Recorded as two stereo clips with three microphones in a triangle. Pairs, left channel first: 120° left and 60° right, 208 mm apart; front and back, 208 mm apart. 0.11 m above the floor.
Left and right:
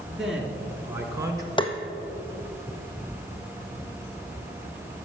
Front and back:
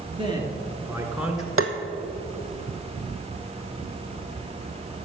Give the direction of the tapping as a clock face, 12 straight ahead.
6 o'clock.